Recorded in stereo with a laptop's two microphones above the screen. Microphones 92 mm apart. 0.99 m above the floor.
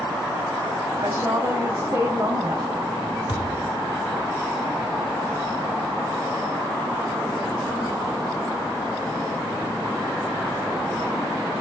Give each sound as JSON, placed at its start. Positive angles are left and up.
{"t": 1.0, "sound": "a woman speaking", "side_deg": -30, "distance_m": 5.0}
{"t": 3.3, "sound": "a thud", "side_deg": 75, "distance_m": 4.5}